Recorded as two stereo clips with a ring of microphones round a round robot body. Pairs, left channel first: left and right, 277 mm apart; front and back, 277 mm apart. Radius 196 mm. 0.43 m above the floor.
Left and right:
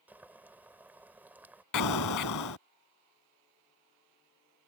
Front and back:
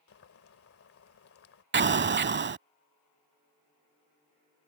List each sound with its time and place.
0.1 s boiling: 10° right
1.7 s an explosion: 130° left